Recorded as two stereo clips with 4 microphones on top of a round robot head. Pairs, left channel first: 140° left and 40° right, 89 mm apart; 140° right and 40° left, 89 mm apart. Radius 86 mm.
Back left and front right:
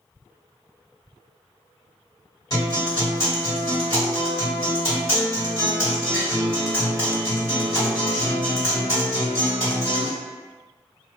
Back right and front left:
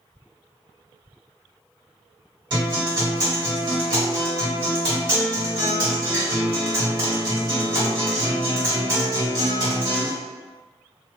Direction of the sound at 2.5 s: 90° left.